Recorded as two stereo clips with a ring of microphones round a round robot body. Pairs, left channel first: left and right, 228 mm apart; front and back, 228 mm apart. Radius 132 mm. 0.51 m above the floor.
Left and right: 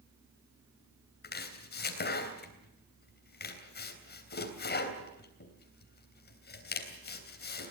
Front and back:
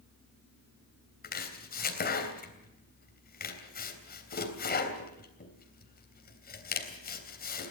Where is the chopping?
45° left, 3.5 m.